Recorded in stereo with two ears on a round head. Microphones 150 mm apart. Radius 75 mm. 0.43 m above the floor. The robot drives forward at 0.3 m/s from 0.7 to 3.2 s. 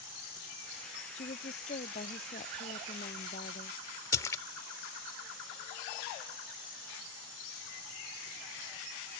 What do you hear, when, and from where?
1.1 s a woman speaking: 40° left (ahead or behind)
4.1 s a splash: 15° left (ahead or behind)